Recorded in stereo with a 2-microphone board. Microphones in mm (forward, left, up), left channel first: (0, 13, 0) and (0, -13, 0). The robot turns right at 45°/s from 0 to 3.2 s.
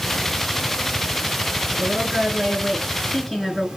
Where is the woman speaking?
60° right, 5 m; by 3.7 s 10° left, 5 m.